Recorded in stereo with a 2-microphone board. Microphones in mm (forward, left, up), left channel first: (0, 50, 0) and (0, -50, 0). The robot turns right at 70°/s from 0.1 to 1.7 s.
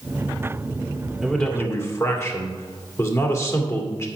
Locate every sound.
1.2 s a man speaking: 5° right, 2 m; by 4.1 s 30° left, 2 m